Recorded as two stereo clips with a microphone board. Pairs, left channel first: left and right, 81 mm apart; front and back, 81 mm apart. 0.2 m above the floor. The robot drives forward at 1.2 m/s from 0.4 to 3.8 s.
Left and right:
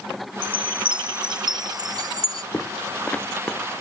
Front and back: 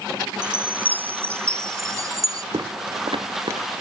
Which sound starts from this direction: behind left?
Footsteps, at 2.5 s.